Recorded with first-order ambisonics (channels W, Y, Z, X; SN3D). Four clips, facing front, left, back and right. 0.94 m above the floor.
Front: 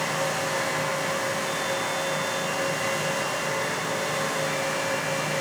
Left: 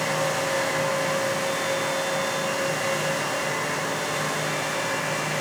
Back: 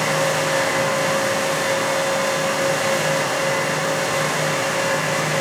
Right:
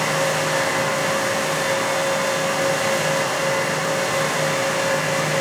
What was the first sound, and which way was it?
Only background noise.